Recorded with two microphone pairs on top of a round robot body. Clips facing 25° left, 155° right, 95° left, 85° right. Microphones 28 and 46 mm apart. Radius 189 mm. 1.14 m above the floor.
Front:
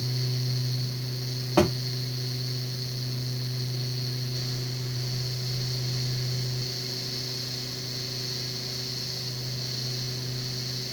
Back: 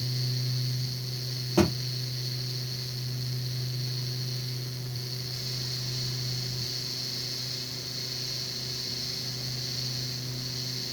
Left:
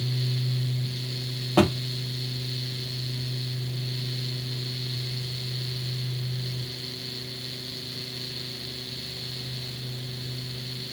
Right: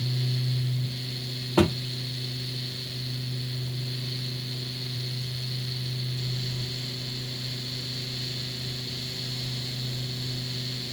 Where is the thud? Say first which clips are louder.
Front 2 dB, left 1 dB; 70° left, 0.5 m.